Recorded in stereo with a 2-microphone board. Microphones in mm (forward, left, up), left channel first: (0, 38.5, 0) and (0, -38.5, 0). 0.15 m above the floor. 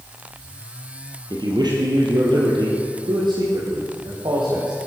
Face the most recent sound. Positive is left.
turn(degrees=-75)  # may be behind; listen again after turning